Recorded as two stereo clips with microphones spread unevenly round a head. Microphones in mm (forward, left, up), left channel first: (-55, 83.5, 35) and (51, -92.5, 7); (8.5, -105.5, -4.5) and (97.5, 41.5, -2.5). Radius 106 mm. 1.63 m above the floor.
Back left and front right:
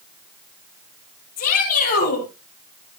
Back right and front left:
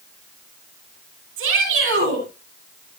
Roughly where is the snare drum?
I don't hear a snare drum.